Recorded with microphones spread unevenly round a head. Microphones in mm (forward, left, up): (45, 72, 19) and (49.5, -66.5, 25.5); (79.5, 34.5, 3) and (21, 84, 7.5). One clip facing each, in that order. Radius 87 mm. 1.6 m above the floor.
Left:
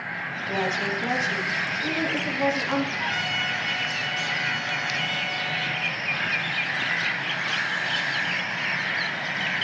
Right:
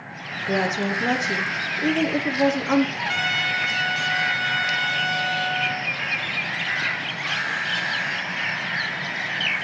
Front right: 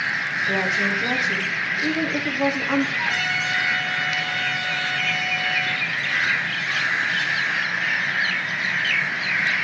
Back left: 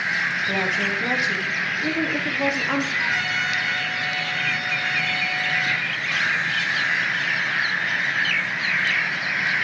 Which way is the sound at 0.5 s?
135° right.